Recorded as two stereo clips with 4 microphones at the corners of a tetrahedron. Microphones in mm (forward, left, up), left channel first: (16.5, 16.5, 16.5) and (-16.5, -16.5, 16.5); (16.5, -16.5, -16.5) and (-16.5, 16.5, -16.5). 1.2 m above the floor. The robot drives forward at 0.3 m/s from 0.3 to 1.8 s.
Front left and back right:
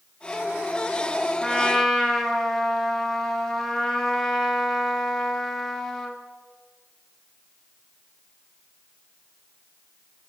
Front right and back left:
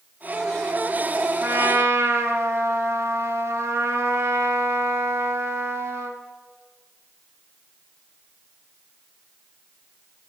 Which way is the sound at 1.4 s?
120° left.